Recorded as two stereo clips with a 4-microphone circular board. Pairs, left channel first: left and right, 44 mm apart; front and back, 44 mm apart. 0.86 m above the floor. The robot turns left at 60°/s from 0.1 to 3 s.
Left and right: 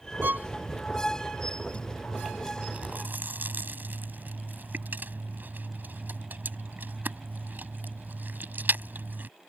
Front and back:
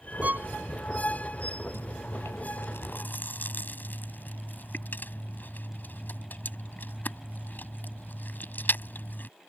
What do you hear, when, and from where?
0.2 s a violin: 125° right; by 0.5 s 140° right
1.7 s chewing: 30° left; by 9.3 s 45° right